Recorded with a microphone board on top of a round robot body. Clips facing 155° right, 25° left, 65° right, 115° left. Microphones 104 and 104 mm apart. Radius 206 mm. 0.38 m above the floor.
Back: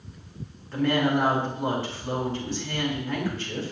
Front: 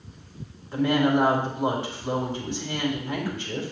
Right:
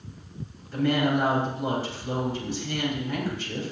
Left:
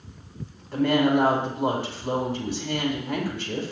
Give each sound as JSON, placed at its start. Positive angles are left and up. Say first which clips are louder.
{"t": 0.7, "sound": "a woman speaking", "louder": "front 2 dB, left 3 dB", "azimuth_deg": 95, "distance_m": 5.0}